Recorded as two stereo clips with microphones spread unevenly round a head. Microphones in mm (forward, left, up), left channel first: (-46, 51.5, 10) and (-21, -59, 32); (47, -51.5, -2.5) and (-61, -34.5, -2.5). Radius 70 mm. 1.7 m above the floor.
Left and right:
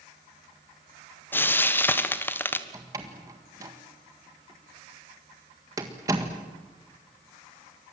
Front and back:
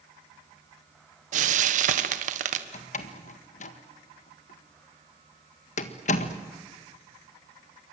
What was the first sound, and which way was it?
Frying, 175° left.